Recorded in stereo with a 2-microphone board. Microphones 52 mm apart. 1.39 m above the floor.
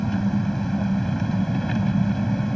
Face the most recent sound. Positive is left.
turn(degrees=5)  # may be behind; listen again after turning